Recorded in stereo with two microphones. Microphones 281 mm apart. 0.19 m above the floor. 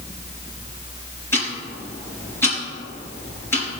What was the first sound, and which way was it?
Ticking, 10° left (ahead or behind).